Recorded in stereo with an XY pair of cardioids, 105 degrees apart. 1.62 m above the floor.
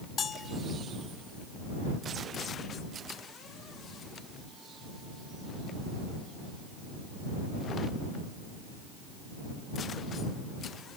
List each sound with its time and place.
0.2 s a bell: 45° left